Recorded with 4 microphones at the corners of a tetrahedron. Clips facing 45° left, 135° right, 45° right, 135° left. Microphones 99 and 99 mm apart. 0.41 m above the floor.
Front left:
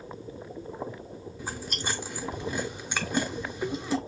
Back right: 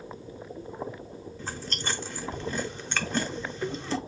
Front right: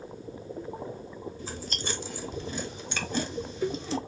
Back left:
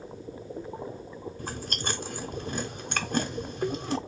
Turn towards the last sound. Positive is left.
turn(degrees=125)